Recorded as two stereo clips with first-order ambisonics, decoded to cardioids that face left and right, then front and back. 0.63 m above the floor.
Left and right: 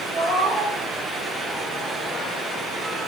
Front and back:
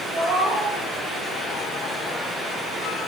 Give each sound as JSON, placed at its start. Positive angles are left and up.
{"t": 0.1, "sound": "a cat meowing", "azimuth_deg": 170, "distance_m": 3.0}